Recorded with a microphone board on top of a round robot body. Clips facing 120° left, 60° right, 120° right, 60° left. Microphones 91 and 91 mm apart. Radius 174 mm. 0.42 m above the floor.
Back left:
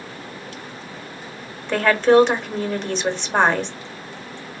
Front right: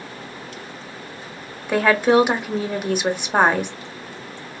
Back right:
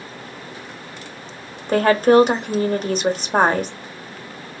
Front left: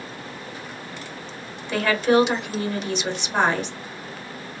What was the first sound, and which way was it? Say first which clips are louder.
A woman speaking: back left 1 dB, back right 6 dB; 135° right.